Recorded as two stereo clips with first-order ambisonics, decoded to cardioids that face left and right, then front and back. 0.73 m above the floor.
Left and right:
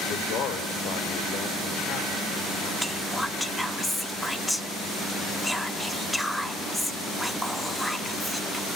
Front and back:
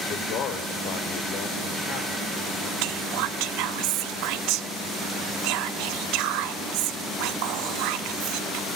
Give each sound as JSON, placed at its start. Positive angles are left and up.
{"t": 0.1, "sound": "a man speaking", "azimuth_deg": 45, "distance_m": 2.5}
{"t": 2.8, "sound": "whispering", "azimuth_deg": 175, "distance_m": 1.1}